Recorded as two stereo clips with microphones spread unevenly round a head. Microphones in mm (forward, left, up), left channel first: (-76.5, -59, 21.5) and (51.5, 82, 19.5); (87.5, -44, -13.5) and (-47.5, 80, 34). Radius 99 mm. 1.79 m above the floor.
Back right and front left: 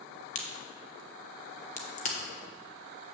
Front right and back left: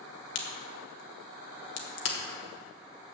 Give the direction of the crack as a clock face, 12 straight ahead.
3 o'clock.